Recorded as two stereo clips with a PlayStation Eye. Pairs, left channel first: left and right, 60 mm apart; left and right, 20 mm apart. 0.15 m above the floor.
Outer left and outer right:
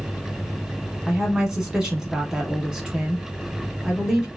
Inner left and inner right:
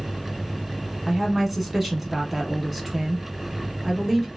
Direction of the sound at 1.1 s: 15° right (ahead or behind).